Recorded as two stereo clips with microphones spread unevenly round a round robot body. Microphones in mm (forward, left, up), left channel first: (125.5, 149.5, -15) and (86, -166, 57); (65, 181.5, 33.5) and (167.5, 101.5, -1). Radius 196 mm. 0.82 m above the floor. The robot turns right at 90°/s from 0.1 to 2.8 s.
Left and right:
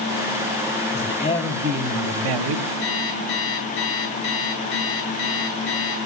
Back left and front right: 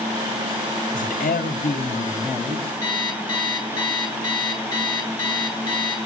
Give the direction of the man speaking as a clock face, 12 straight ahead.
8 o'clock.